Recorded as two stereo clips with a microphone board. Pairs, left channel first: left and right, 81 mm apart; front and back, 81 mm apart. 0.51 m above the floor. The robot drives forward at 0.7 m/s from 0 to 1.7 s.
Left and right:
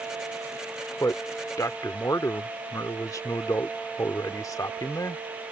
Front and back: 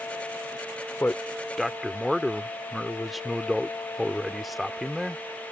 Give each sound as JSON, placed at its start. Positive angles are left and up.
{"t": 1.0, "sound": "a man speaking", "azimuth_deg": 60}